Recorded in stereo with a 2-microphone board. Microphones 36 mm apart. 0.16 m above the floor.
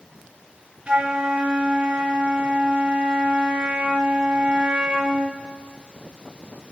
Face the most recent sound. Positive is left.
turn(degrees=-25)  # may be behind; listen again after turning